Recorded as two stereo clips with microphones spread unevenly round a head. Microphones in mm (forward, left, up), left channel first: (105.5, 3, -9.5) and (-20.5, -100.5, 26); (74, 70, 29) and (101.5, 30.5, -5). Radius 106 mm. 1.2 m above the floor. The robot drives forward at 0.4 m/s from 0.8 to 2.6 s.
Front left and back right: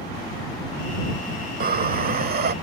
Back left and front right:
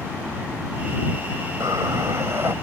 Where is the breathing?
140° right; by 2.5 s 145° right.